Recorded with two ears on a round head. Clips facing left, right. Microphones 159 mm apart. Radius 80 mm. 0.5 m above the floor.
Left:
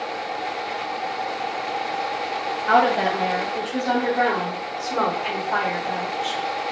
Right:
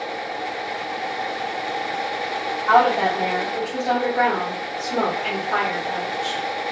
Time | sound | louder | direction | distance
2.7 | a woman speaking | right 2 dB | 25° left (ahead or behind) | 0.9 m